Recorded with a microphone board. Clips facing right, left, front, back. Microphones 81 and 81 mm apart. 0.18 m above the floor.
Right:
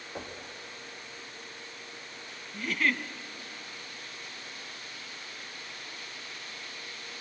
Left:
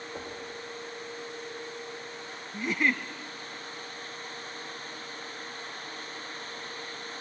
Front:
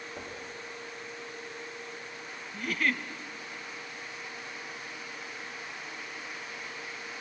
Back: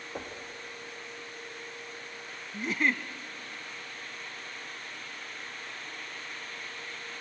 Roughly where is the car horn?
No car horn in this recording.